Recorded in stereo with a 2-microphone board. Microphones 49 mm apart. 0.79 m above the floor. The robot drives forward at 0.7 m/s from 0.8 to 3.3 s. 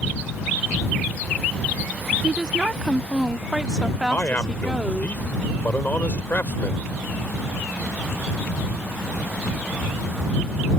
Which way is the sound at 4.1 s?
40° left (ahead or behind).